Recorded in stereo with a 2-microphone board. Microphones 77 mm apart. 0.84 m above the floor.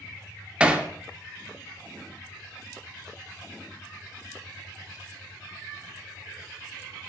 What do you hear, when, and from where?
0.6 s hammering: 15° right (ahead or behind), 0.6 m